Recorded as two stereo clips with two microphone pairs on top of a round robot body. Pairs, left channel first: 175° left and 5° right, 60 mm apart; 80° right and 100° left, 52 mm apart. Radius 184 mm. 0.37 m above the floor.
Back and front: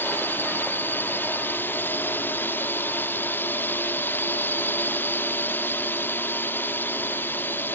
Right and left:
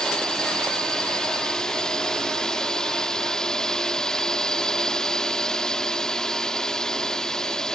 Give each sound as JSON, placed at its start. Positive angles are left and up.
{"t": 0.0, "sound": "a drone", "azimuth_deg": -160}